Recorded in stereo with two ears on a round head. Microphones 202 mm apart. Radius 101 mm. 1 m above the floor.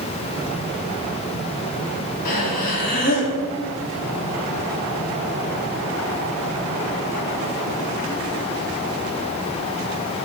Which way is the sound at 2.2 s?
40° left (ahead or behind).